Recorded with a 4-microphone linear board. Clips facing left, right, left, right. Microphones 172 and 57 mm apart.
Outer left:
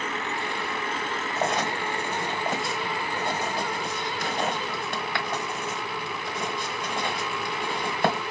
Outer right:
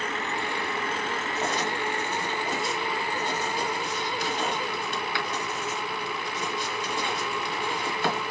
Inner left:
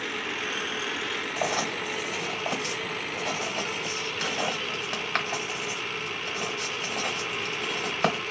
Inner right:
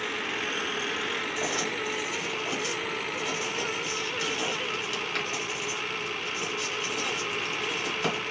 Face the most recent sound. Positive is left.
turn(degrees=50)  # may be behind; listen again after turning